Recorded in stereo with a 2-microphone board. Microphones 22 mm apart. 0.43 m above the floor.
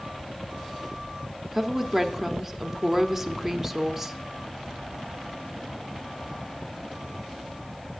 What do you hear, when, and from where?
1.5 s a woman speaking: 10° right (ahead or behind), 0.7 m